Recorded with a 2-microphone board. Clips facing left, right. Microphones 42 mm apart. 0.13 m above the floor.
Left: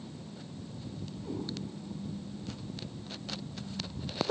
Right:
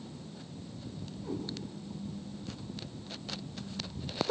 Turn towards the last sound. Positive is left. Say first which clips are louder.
# right 1 dB
turn(degrees=0)  # may be behind; listen again after turning